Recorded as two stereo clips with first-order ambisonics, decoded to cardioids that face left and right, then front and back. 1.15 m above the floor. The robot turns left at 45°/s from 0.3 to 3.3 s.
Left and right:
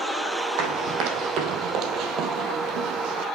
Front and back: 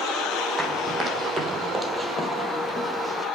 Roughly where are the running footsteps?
Right.